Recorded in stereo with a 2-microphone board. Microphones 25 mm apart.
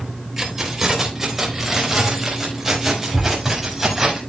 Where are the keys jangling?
15° right (ahead or behind), 3 m; by 4.2 s 10° right (ahead or behind), 5 m.